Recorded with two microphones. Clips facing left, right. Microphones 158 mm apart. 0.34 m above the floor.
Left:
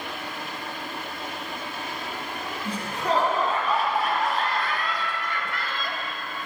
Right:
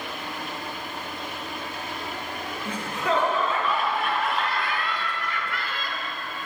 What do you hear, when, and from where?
2.6 s laughter: 40° left (ahead or behind), 3 m; by 6.0 s 50° left (ahead or behind), 1.4 m